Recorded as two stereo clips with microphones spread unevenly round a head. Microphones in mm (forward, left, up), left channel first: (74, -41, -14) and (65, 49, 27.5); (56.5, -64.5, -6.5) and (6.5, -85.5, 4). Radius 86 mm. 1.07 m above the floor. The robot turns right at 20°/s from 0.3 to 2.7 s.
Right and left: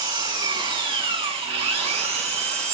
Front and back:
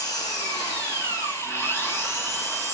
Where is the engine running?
60° left, 6.5 m; by 2.7 s 110° left, 6.5 m.